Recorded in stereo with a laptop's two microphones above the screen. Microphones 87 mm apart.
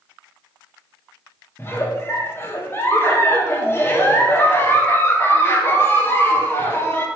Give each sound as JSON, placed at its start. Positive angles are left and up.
{"t": 1.6, "sound": "a giggle", "side_deg": 25, "distance_m": 0.6}